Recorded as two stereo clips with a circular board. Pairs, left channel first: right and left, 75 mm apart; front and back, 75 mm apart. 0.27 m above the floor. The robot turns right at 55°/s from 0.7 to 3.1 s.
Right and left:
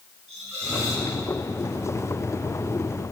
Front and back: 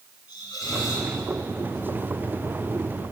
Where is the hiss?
30° left, 3 m; by 1.1 s 50° left, 3 m.